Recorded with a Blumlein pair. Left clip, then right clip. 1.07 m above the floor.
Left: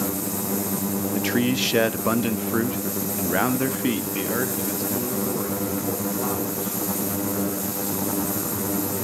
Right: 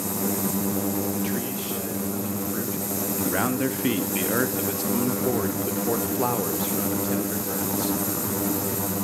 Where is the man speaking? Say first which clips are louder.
Left 6 dB; 65° left, 1.3 m; by 8.0 s 30° right, 3.5 m.